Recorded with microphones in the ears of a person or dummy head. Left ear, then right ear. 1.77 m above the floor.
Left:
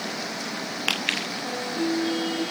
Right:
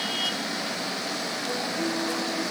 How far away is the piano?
About 8 m.